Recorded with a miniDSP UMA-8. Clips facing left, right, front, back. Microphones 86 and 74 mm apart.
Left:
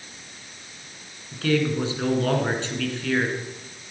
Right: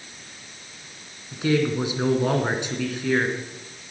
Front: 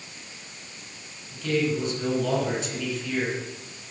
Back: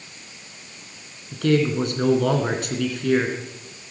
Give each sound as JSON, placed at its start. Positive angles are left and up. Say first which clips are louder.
{"t": 1.3, "sound": "a man speaking", "louder": "right 1 dB, back 5 dB", "azimuth_deg": -165, "distance_m": 2.5}